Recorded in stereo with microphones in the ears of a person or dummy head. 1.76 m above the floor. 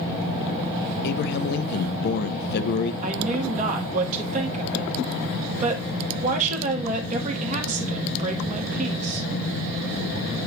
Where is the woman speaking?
40° right (ahead or behind), 2.5 m.